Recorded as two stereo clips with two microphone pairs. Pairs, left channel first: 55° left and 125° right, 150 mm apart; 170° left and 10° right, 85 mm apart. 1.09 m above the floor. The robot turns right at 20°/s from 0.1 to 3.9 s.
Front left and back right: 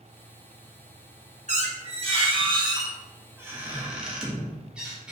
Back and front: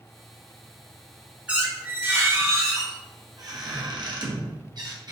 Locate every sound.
1.5 s a squeak: 85° right, 0.7 m; by 5.1 s 40° right, 0.7 m